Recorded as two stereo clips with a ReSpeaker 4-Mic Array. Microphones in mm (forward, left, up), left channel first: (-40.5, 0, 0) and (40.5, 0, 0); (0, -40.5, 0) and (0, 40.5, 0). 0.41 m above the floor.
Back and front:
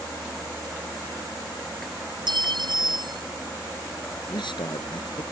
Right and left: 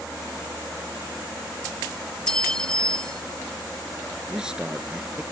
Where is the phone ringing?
I don't hear a phone ringing.